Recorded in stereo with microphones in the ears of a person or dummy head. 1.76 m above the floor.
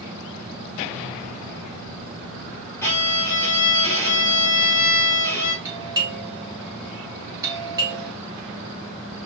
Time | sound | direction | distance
2.8 | a violin | 10° left (ahead or behind) | 2.5 m
5.7 | a doorbell | 20° right (ahead or behind) | 2.5 m